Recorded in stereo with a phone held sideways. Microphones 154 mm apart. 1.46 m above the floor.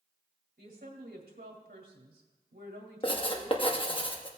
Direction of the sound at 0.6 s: 80° right.